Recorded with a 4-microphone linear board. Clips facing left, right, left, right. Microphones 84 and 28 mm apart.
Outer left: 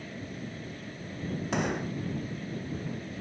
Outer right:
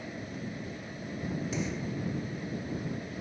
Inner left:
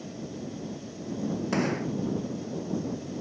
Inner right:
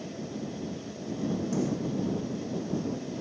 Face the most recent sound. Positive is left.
turn(degrees=65)  # may be behind; listen again after turning